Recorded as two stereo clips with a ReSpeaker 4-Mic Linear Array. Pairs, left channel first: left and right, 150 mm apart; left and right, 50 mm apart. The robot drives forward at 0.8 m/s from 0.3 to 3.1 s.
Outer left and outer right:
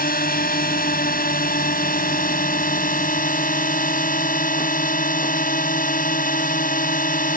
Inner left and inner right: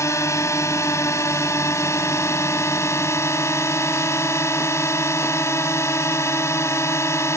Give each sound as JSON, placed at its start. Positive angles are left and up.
{"t": 0.0, "sound": "a drone", "side_deg": 70}